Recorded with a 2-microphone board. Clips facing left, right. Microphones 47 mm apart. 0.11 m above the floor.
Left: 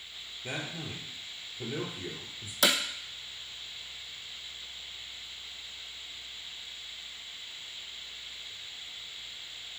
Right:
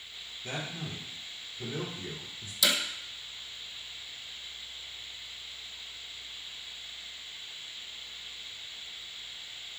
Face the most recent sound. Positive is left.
turn(degrees=50)  # may be behind; listen again after turning